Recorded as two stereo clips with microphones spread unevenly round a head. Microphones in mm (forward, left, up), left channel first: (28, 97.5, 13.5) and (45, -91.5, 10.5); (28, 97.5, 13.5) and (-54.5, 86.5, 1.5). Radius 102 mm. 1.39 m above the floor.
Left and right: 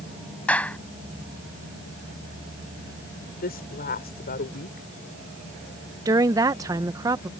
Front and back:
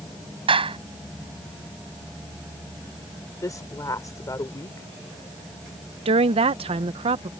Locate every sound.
0.5 s a clap: straight behind
3.4 s a woman speaking: 55° left
6.0 s a woman speaking: 160° right